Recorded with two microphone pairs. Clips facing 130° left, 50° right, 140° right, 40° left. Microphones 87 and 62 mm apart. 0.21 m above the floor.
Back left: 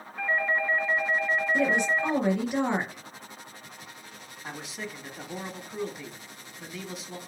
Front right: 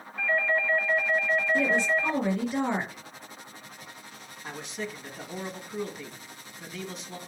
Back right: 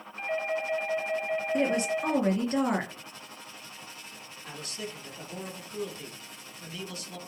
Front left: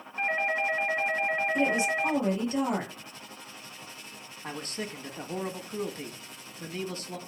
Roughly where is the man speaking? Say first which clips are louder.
Front right 2 dB, front left 3 dB; ahead left.